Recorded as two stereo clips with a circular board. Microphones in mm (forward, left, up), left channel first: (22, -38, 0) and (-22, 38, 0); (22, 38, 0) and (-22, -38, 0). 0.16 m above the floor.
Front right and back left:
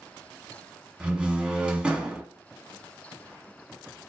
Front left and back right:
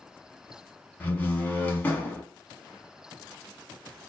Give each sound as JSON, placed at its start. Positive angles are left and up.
{"t": 1.0, "sound": "a door slam", "azimuth_deg": 65, "distance_m": 0.7}